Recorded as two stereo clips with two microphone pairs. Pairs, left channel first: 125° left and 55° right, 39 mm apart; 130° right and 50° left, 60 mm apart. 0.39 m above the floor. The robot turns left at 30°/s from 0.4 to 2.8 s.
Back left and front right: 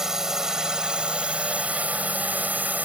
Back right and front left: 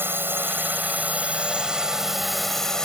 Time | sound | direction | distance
0.0 | a drone | 15° left | ?